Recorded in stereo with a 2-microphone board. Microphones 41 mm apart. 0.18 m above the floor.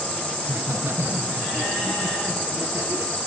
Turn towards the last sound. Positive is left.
turn(degrees=-70)  # may be behind; listen again after turning